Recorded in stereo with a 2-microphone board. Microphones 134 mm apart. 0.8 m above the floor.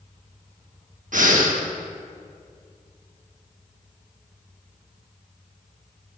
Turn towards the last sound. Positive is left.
turn(degrees=-70)  # may be behind; listen again after turning